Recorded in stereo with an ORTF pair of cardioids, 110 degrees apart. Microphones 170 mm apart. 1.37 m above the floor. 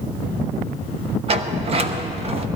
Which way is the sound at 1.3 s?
35° right.